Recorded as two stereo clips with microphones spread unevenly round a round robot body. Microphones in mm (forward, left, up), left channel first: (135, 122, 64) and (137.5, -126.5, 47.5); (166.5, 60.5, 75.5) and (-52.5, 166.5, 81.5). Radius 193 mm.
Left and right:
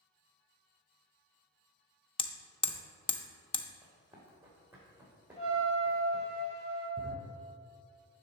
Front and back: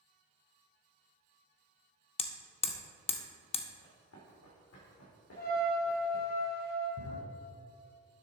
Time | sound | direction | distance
2.2 | hammering | 30° left | 0.6 m
3.8 | running footsteps | 10° right | 3 m
5.4 | a trumpet | 25° left | 3 m
7.0 | a drawer | 35° right | 3.5 m